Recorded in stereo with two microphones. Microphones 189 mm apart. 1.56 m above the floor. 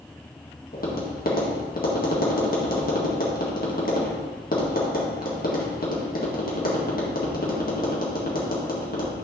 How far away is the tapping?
About 1.8 m.